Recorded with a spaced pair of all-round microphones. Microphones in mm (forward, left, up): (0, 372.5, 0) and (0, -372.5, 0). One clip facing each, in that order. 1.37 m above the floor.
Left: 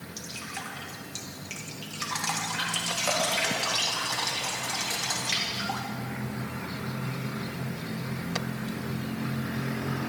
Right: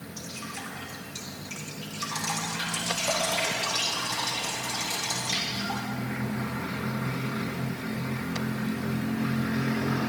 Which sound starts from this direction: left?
Dripping, at 0.2 s.